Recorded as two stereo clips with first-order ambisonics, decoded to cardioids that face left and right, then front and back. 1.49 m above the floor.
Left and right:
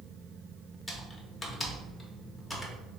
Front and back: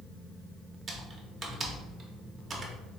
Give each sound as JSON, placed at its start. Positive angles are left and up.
{"t": 0.9, "sound": "typing on a keyboard", "azimuth_deg": 160, "distance_m": 0.6}